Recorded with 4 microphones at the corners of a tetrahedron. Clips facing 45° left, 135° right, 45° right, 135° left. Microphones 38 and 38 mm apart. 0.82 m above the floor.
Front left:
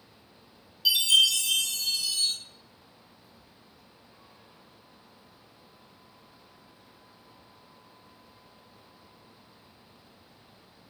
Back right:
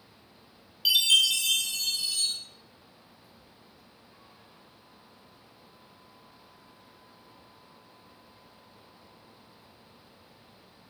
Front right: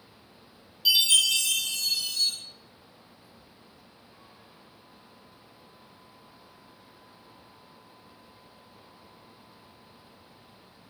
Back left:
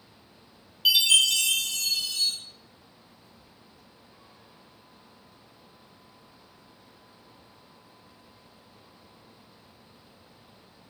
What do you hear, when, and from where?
0.8 s a chime: 175° left, 0.7 m